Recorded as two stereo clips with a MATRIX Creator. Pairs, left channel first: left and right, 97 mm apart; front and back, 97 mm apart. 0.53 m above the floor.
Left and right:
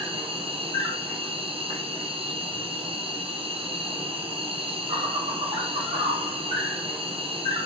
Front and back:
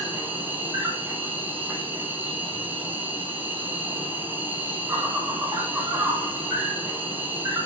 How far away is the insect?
About 4 m.